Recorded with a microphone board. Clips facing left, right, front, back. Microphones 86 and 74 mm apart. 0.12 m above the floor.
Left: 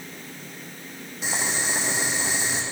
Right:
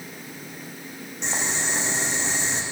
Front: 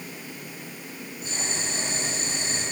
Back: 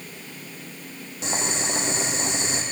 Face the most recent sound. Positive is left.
turn(degrees=175)